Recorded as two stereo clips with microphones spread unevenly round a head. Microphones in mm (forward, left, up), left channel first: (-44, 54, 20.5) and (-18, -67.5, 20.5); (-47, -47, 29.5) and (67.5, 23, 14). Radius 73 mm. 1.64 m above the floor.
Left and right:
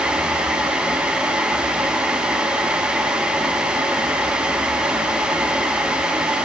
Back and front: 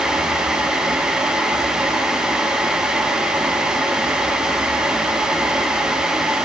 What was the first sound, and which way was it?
Only background noise.